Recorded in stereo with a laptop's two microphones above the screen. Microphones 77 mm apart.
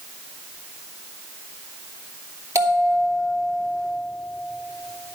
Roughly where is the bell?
Right.